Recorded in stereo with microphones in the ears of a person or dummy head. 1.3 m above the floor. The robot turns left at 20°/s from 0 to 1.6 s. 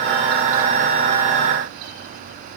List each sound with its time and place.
Only background noise.